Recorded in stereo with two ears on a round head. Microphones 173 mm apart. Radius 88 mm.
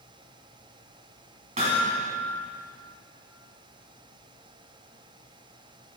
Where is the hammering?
35° right (ahead or behind), 3 m.